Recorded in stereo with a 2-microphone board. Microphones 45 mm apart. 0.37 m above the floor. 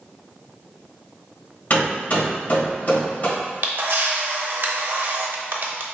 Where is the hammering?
45° left (ahead or behind), 1.5 m.